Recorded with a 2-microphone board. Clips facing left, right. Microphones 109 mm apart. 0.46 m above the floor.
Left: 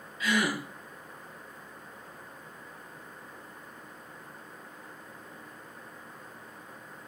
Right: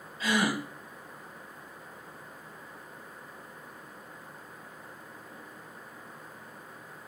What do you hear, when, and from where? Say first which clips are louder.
0.2 s a gasp: right 1 dB; 30° right (ahead or behind), 2.5 m